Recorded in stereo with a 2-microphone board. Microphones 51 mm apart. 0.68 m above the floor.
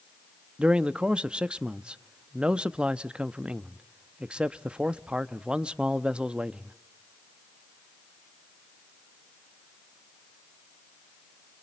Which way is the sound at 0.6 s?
20° right (ahead or behind).